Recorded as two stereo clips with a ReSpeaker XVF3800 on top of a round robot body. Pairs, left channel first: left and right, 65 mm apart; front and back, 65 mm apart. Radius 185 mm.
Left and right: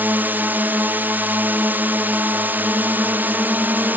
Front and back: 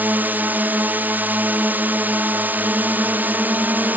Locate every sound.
0.0 s a drone: 135° right